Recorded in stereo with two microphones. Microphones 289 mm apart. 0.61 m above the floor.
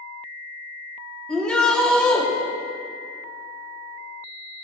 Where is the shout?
5° left (ahead or behind), 1.4 m.